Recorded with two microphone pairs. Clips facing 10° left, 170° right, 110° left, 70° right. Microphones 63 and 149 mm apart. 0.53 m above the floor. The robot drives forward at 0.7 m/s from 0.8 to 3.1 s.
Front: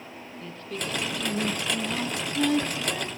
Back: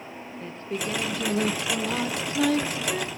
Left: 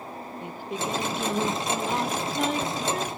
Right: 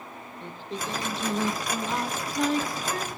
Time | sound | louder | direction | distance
0.4 | singing | back 3 dB, left 3 dB | 175° right | 0.9 m